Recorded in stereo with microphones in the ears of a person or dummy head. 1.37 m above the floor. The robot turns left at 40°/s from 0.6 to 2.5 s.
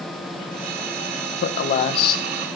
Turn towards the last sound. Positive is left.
turn(degrees=15)